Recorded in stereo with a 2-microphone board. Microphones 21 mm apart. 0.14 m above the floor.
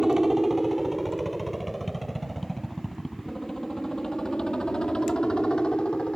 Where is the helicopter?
30° right (ahead or behind); by 6.2 s 45° left (ahead or behind).